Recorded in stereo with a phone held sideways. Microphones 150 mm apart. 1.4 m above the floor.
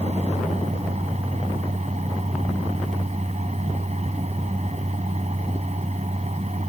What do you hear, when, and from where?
0.0 s a fan: 50° right (ahead or behind)